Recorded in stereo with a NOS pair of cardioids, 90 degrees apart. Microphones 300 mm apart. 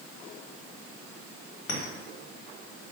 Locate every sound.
1.7 s a clink: 55° left, 1.1 m